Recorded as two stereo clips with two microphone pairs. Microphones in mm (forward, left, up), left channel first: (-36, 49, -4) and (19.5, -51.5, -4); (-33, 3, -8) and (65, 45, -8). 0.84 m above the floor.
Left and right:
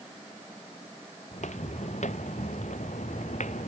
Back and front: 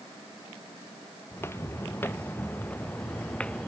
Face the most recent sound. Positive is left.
turn(degrees=120)